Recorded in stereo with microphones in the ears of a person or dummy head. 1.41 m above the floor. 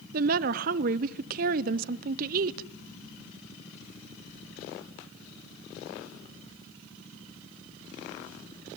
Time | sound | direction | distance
0.1 | a woman speaking | 50° right (ahead or behind) | 0.6 m